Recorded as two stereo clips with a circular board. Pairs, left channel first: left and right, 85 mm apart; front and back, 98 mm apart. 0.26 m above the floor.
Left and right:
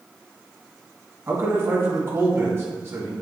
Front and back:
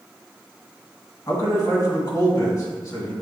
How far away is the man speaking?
About 2 m.